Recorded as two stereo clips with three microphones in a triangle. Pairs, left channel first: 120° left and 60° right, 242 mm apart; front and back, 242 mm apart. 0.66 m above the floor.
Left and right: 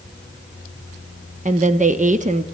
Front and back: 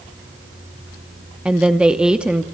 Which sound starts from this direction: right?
A woman speaking, at 1.4 s.